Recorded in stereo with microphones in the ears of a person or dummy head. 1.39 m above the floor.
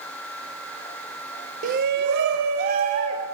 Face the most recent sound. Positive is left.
turn(degrees=-50)  # may be behind; listen again after turning